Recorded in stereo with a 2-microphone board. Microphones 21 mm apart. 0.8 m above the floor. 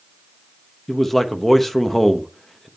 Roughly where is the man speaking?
Centre.